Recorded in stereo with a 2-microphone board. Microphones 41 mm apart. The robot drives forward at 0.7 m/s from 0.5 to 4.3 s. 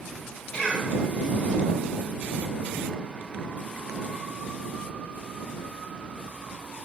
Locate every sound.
0.5 s a cough: 25° left (ahead or behind), 1.3 m